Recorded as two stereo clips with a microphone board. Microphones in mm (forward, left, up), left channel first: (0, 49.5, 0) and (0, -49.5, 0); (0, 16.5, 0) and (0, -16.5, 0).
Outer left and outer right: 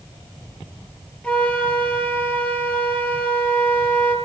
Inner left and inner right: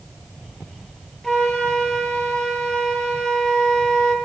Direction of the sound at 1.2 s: 15° left (ahead or behind).